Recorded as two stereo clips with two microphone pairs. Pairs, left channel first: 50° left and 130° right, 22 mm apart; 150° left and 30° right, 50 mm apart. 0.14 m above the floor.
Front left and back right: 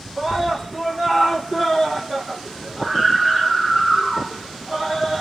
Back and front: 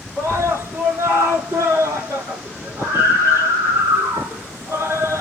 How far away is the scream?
About 7.5 m.